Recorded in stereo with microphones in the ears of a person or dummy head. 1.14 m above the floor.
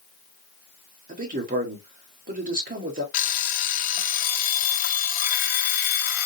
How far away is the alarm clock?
About 0.6 m.